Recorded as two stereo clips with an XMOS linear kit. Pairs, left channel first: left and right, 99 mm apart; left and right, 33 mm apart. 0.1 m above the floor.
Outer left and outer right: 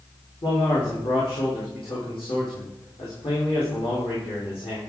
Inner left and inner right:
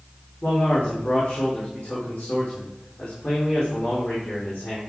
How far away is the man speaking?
About 4.5 m.